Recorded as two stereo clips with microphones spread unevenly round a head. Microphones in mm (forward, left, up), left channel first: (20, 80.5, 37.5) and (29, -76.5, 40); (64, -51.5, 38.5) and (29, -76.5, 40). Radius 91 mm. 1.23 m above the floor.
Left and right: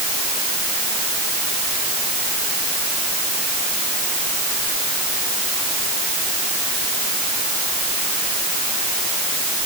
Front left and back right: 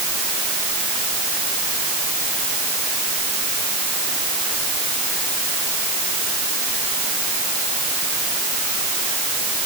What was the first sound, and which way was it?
Only background noise.